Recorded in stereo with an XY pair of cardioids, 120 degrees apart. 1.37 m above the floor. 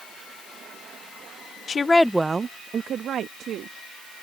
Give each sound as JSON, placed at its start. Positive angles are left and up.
{"t": 1.7, "sound": "a woman speaking", "azimuth_deg": 40}